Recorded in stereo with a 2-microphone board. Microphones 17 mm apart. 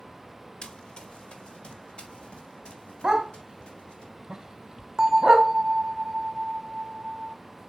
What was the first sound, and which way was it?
Running footsteps, 70° left (ahead or behind).